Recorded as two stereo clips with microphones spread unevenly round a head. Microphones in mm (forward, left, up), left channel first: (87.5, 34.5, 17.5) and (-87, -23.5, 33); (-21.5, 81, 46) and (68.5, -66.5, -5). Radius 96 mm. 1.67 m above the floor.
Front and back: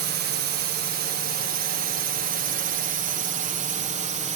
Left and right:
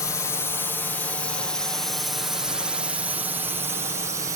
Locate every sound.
0.0 s a drone: 155° right; by 4.4 s 115° right